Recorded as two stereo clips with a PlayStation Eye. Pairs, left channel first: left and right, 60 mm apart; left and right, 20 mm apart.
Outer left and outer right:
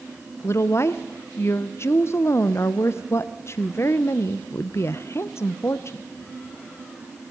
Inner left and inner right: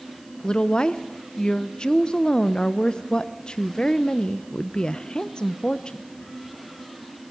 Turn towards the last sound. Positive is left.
turn(degrees=45)  # may be behind; listen again after turning